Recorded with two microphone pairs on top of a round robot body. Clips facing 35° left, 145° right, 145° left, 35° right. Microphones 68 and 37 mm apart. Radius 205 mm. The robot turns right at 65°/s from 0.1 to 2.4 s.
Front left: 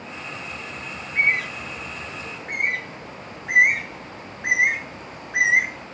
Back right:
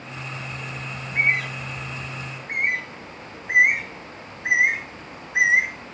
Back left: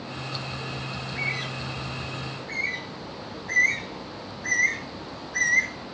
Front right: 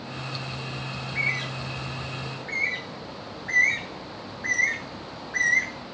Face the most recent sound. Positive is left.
turn(degrees=15)